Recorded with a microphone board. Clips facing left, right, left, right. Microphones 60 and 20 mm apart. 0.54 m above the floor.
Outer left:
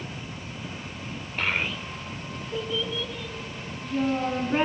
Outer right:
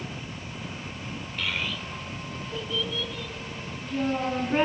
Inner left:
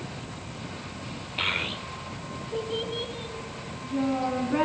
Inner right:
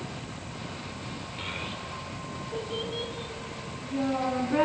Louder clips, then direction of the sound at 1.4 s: Outer left 4 dB, inner left 9 dB; 45° left (ahead or behind).